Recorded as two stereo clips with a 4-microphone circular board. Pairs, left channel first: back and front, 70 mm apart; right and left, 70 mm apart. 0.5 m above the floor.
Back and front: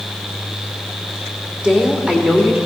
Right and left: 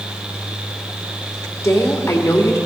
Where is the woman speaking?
70° right, 1.7 m.